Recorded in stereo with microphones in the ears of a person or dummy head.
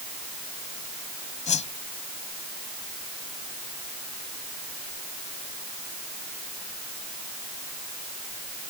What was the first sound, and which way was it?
A whoosh, 30° left (ahead or behind).